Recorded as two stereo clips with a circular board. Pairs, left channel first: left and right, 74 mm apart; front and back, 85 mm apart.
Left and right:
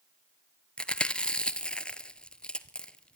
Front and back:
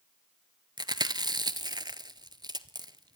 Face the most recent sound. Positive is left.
turn(degrees=165)